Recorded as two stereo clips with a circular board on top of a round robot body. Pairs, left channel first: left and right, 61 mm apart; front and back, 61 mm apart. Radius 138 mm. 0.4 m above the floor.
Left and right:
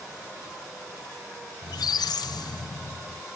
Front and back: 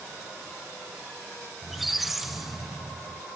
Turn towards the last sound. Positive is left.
turn(degrees=95)